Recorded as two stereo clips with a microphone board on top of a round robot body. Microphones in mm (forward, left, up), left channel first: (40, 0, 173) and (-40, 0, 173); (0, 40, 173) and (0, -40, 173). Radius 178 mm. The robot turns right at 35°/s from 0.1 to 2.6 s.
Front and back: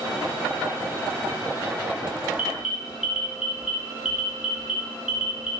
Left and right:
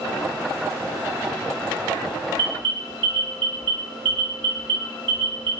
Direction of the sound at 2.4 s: 105° right.